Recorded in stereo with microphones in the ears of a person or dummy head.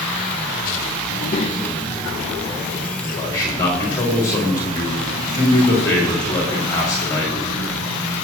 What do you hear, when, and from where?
1.1 s a child speaking: 50° left (ahead or behind), 0.7 m; by 2.9 s 5° right (ahead or behind), 2 m
3.0 s a man speaking: 15° left (ahead or behind), 3.5 m